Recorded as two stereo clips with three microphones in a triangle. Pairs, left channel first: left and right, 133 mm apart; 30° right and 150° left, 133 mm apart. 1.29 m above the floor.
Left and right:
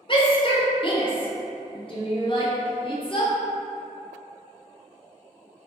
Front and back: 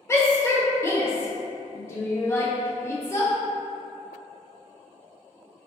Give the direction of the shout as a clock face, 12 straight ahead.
11 o'clock.